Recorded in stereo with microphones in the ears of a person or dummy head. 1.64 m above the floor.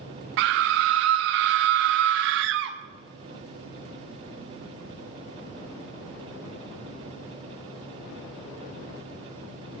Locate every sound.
0.4 s a scream: 60° right (ahead or behind), 0.5 m